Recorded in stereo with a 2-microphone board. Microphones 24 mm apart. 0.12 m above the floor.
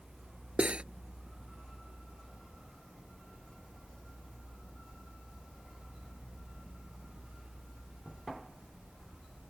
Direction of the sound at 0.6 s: 50° right (ahead or behind).